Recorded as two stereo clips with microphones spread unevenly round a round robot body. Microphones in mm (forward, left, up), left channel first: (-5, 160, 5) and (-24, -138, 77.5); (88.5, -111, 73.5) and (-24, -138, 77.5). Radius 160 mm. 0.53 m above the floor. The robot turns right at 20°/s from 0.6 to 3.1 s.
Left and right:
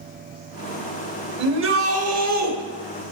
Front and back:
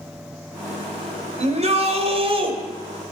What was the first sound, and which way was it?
A shout, 150° right.